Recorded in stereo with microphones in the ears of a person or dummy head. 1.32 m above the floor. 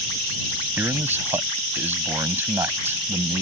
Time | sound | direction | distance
0.8 | a man speaking | 10° right (ahead or behind) | ?